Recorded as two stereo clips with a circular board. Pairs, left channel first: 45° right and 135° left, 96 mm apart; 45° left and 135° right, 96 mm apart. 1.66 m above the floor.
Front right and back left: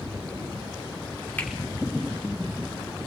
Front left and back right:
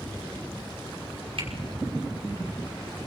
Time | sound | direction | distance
1.4 | a finger snap | 115° right | 5.5 m